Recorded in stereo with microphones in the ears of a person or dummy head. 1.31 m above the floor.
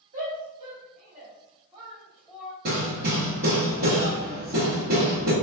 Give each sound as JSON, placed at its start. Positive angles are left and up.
{"t": 0.1, "sound": "a shout", "side_deg": -40, "distance_m": 1.7}
{"t": 2.6, "sound": "hammering", "side_deg": -50, "distance_m": 1.1}